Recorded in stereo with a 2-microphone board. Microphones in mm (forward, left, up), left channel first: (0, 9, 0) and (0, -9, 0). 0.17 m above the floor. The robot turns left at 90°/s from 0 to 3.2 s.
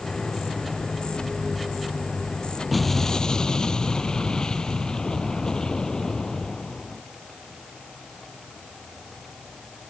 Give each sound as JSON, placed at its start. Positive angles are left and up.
{"t": 2.7, "sound": "an explosion", "azimuth_deg": 175}